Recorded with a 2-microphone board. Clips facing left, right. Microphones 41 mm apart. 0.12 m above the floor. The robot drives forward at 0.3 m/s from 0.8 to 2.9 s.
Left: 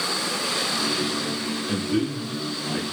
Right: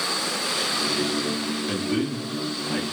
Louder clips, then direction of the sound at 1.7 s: Left 2 dB; 35° right (ahead or behind).